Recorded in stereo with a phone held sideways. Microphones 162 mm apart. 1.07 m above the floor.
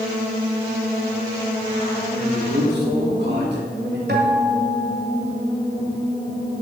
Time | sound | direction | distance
2.2 | a man speaking | 80° right | 2.5 m
4.1 | a guitar | 70° right (ahead or behind) | 1.8 m